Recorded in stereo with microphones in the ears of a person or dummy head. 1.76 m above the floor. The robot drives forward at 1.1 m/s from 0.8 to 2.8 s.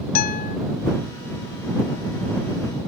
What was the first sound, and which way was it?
A guitar, 50° left (ahead or behind).